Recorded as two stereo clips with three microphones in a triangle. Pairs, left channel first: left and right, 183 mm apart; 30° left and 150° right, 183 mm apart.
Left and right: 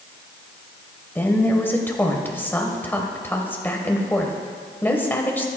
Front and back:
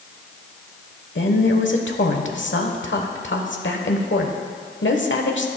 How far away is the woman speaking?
About 1.2 m.